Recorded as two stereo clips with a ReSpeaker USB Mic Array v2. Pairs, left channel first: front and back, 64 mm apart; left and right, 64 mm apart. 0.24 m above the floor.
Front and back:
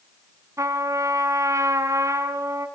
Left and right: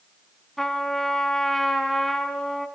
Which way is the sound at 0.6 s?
175° left.